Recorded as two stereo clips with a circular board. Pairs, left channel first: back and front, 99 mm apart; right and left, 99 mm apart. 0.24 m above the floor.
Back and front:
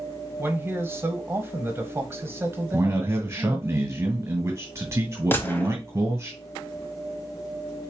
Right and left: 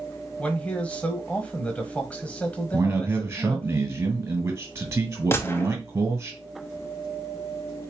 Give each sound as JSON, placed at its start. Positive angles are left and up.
{"t": 0.4, "sound": "a man speaking", "azimuth_deg": -30, "distance_m": 1.0}
{"t": 2.7, "sound": "a man speaking", "azimuth_deg": 45, "distance_m": 1.9}
{"t": 5.3, "sound": "a gunshot", "azimuth_deg": -130, "distance_m": 0.7}